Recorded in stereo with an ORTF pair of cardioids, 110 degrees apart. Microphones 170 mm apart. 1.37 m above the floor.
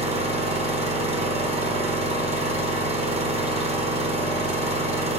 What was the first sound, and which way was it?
An engine running, 40° right.